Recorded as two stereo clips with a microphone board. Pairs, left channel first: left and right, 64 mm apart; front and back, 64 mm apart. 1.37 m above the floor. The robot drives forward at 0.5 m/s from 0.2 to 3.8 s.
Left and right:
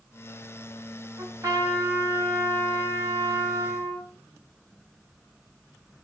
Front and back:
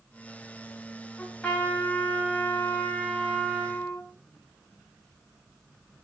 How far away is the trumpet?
About 6.5 m.